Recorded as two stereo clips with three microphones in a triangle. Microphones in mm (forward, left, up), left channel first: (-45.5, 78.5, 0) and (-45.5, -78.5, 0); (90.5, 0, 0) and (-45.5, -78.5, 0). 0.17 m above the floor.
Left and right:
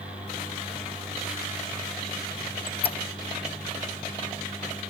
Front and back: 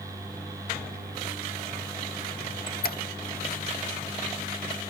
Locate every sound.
2.4 s a squeak: 40° left, 0.7 m